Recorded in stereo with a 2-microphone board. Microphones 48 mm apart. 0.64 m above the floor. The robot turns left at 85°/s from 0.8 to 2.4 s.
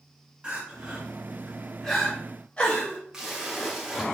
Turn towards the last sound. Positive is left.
turn(degrees=-10)  # may be behind; listen again after turning